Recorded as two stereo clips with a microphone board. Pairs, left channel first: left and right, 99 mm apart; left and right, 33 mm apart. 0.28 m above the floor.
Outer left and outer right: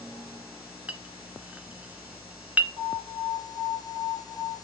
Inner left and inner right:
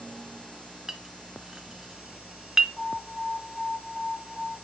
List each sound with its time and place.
0.9 s a clink: 15° right (ahead or behind), 0.8 m
2.8 s an alarm: 60° left (ahead or behind), 3 m